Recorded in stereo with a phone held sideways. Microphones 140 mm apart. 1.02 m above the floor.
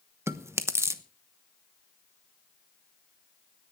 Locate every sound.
0.3 s chewing: 15° right (ahead or behind), 1.0 m